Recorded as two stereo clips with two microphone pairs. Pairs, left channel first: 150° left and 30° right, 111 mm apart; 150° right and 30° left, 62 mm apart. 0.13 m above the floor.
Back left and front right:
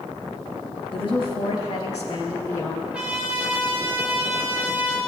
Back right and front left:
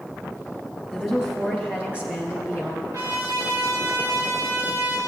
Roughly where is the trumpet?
Ahead left.